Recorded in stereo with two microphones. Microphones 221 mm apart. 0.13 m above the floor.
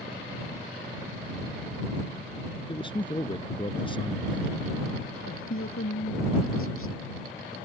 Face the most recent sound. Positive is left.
turn(degrees=75)  # may be behind; listen again after turning